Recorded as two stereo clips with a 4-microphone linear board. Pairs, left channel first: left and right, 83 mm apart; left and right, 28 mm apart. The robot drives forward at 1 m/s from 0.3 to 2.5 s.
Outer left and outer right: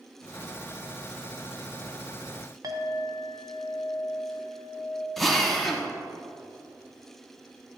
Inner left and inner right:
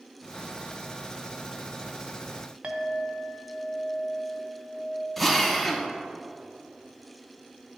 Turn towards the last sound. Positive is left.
turn(degrees=5)  # may be behind; listen again after turning